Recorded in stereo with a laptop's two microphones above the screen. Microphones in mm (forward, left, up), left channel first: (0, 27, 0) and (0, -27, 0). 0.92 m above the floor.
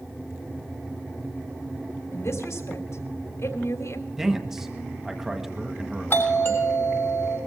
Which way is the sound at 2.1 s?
60° left (ahead or behind).